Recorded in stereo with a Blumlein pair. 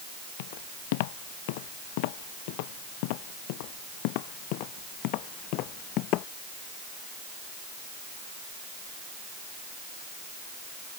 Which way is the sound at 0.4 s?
50° left.